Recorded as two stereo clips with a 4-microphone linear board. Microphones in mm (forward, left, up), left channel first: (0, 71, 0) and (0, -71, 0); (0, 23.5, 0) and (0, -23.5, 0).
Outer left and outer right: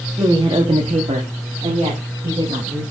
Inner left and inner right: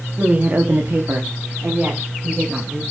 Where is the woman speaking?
20° right (ahead or behind), 1.1 m; by 2.8 s 40° right (ahead or behind), 3.5 m.